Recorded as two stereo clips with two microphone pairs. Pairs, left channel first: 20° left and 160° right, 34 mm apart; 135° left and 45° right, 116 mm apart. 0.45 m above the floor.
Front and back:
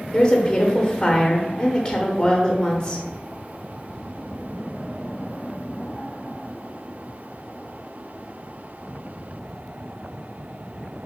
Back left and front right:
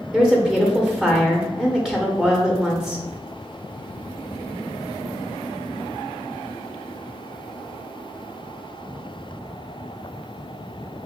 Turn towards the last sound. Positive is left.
turn(degrees=30)